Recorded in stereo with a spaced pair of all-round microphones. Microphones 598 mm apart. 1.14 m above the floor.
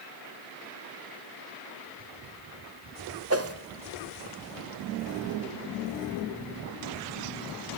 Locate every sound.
3.3 s a whoosh: 25° right (ahead or behind), 1.0 m